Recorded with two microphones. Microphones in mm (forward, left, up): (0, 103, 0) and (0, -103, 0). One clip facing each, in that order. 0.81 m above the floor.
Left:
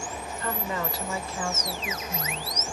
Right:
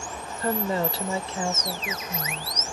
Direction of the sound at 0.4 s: 40° right (ahead or behind).